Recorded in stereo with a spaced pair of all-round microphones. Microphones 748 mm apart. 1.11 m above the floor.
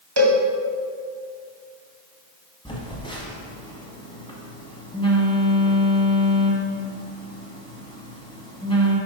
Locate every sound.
0.2 s a cowbell: 35° right (ahead or behind), 0.8 m
2.6 s a phone buzzing: 5° left (ahead or behind), 1.2 m